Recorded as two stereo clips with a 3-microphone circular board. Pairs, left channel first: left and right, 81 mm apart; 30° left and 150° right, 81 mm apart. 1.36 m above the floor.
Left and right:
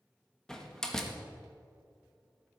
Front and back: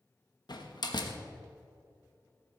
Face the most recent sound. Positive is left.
turn(degrees=5)